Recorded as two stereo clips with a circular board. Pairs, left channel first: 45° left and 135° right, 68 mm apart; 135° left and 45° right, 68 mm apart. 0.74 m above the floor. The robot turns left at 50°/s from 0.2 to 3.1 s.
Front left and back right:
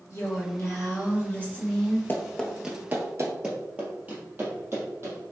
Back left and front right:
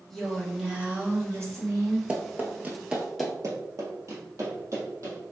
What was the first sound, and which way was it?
A woman speaking, 50° left.